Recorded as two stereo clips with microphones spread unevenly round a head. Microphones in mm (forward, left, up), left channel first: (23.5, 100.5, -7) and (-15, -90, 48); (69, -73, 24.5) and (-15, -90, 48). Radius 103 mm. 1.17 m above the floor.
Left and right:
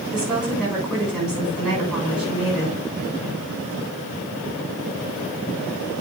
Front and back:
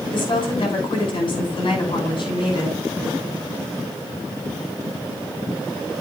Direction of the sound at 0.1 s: 15° right.